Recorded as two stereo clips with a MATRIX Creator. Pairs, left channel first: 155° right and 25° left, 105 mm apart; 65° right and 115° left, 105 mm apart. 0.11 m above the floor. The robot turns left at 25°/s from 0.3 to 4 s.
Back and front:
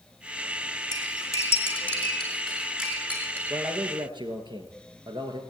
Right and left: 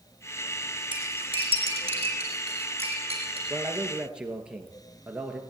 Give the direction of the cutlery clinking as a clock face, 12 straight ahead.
7 o'clock.